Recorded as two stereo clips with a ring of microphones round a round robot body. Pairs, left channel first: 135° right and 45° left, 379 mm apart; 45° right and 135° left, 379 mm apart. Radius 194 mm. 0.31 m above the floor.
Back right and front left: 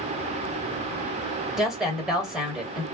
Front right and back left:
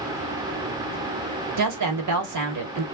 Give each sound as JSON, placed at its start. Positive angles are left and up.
{"t": 1.6, "sound": "a woman speaking", "azimuth_deg": 130, "distance_m": 1.2}